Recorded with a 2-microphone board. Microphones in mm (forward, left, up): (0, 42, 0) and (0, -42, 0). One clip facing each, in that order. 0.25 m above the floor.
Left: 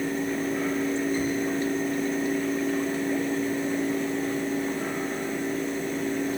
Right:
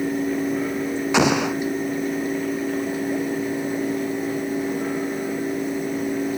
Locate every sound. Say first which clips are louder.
1.1 s an explosion: right 7 dB; 80° right